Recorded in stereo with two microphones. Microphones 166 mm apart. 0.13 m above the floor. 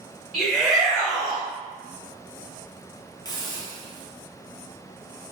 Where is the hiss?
25° left (ahead or behind), 0.7 m.